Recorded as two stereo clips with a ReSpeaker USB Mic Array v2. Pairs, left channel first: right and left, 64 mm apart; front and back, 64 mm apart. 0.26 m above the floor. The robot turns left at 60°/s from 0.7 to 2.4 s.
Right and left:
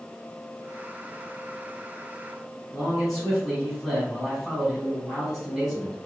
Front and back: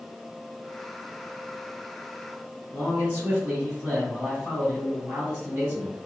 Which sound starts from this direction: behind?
A man speaking, at 2.7 s.